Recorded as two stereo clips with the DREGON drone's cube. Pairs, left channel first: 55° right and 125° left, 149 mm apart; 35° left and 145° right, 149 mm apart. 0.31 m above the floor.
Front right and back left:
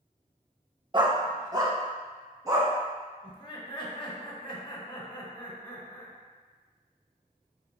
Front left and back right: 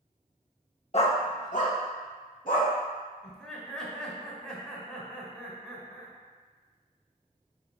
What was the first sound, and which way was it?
A dog barking, 70° left.